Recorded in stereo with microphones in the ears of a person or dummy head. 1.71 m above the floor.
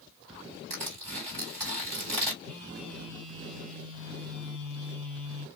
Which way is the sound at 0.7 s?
10° right (ahead or behind).